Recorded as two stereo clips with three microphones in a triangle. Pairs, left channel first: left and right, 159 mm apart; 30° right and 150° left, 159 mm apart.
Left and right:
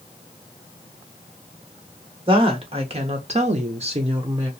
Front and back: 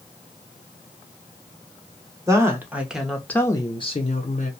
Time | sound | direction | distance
2.3 | a woman speaking | 140° right | 1.0 m